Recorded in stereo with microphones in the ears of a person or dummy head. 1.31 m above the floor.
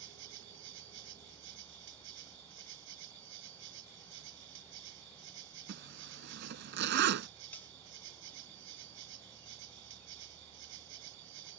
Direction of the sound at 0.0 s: 70° right (ahead or behind).